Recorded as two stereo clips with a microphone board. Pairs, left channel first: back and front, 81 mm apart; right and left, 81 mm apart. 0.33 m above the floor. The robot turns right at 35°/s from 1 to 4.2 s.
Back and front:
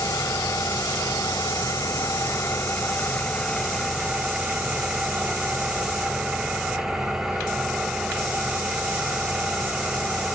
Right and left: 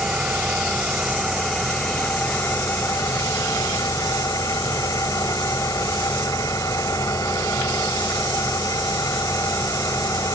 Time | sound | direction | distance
0.0 | an engine running | 170° left | 1.4 m